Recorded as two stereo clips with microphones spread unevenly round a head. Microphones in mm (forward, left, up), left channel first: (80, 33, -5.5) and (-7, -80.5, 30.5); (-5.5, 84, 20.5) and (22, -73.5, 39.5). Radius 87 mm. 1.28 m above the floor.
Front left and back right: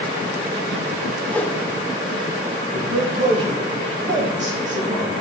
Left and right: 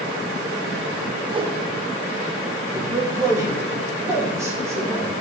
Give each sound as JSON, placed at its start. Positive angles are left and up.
{"t": 1.3, "sound": "a whoosh", "azimuth_deg": -20, "distance_m": 0.8}
{"t": 2.7, "sound": "a man speaking", "azimuth_deg": -155, "distance_m": 2.5}